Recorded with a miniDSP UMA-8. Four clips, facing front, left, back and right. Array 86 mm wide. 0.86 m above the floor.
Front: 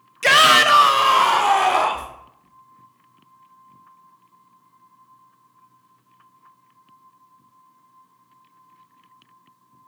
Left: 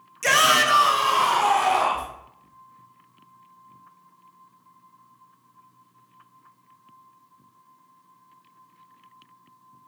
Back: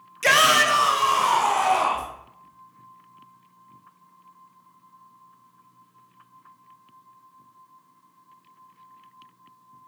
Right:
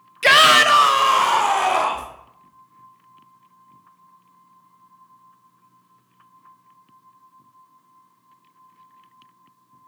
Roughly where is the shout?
Right.